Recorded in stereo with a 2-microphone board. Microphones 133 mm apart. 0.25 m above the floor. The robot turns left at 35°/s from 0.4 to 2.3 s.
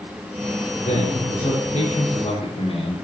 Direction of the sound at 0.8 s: 105° left.